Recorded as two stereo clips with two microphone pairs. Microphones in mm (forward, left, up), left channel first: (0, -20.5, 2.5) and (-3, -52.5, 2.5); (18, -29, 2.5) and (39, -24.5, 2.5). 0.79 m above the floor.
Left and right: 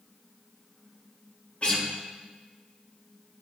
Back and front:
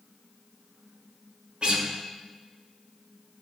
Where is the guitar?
40° left, 1.1 m.